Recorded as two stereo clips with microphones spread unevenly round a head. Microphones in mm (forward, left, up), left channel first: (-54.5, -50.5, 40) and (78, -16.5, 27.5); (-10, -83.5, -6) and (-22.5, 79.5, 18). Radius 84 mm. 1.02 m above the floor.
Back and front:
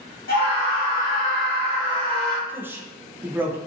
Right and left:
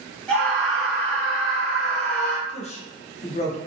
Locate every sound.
0.3 s a scream: 165° right, 1.3 m
2.5 s a man speaking: 55° right, 0.6 m